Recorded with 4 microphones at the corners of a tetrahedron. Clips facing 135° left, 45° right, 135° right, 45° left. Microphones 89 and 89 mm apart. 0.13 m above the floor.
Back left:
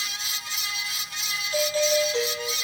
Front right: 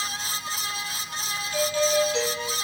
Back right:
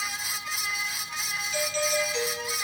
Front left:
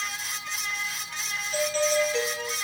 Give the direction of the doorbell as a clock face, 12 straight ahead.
9 o'clock.